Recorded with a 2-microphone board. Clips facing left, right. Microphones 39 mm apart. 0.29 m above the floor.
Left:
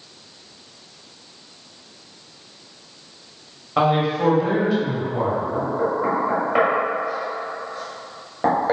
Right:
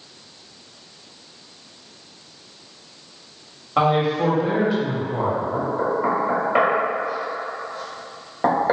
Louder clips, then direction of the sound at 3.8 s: Even; centre (ahead or behind).